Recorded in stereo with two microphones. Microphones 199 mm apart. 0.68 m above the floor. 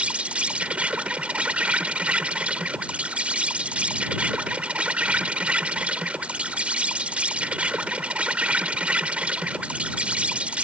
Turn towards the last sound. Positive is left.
turn(degrees=-5)  # may be behind; listen again after turning